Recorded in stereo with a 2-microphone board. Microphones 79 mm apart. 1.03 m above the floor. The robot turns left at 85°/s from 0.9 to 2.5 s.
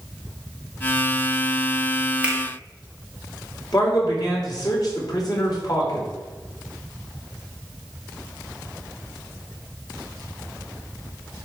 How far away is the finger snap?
About 1.7 m.